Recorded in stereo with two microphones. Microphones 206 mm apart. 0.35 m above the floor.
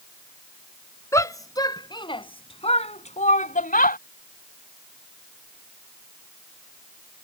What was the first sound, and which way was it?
A shout, 15° left (ahead or behind).